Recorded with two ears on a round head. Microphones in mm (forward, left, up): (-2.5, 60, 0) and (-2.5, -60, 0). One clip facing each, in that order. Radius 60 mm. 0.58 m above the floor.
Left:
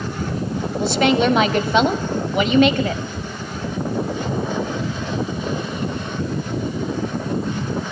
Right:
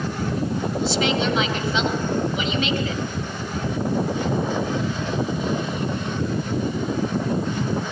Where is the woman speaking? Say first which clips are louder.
Left 7 dB; 45° left (ahead or behind), 2.5 m.